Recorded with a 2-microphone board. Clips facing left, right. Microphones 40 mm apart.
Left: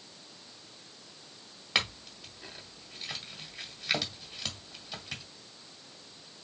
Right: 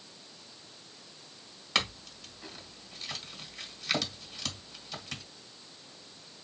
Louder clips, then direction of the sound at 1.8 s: Even; 5° left (ahead or behind).